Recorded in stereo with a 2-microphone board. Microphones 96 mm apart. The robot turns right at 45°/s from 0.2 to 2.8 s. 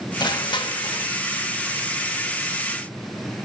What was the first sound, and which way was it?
Crushing, 60° left.